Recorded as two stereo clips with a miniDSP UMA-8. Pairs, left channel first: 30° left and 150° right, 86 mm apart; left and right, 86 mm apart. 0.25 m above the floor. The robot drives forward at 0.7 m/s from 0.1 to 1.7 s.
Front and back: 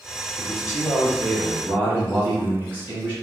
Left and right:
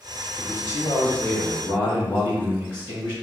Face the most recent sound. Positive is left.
turn(degrees=160)